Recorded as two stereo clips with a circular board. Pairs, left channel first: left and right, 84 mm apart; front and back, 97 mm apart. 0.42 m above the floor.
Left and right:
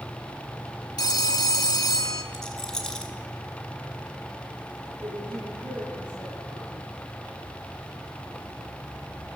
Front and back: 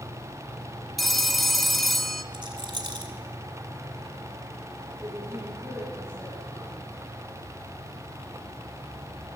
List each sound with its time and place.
1.0 s a phone ringing: 90° left, 0.8 m
2.3 s a rattle: 170° left, 1.8 m
5.0 s a woman speaking: 95° right, 4.5 m